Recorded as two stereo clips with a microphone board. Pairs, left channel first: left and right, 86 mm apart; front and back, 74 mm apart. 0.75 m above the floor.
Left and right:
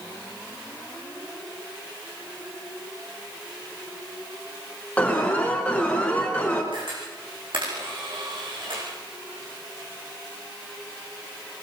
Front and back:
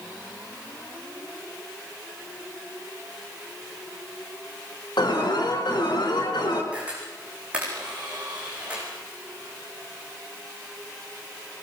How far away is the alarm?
About 5 m.